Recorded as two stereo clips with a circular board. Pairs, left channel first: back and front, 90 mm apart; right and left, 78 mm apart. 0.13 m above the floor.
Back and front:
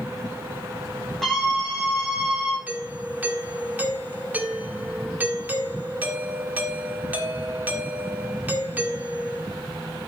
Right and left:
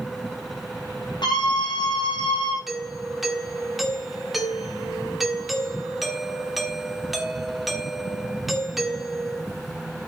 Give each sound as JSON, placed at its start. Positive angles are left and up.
{"t": 1.2, "sound": "a scream", "azimuth_deg": -95, "distance_m": 9.0}
{"t": 2.7, "sound": "a doorbell", "azimuth_deg": 0, "distance_m": 1.7}